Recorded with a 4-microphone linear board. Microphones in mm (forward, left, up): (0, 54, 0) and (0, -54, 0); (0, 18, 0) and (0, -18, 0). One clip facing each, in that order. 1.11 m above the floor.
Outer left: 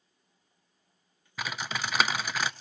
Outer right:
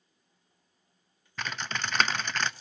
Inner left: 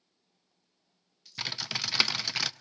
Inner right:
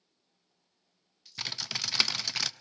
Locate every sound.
1.4 s typing on a keyboard: 10° left (ahead or behind), 0.5 m